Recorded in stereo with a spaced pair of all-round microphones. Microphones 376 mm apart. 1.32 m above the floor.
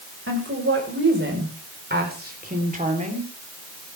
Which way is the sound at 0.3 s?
35° right (ahead or behind).